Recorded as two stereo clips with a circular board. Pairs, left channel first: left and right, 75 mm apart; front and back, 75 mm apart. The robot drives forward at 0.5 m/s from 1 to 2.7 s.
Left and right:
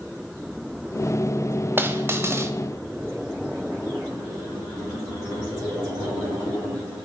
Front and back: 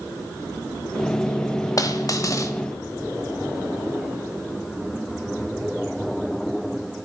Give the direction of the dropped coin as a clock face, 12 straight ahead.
1 o'clock.